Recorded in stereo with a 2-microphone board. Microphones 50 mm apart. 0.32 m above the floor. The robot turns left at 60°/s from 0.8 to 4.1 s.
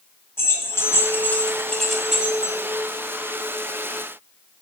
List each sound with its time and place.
0.4 s keys jangling: 55° left (ahead or behind), 1.6 m; by 2.5 s 30° right (ahead or behind), 1.6 m